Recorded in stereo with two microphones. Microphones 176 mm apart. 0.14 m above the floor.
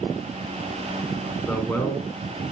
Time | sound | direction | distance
1.5 | a man speaking | 10° left (ahead or behind) | 1.3 m